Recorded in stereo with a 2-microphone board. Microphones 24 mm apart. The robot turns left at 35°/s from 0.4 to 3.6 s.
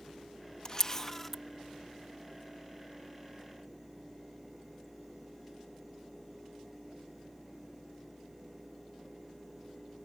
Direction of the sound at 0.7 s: 30° left (ahead or behind).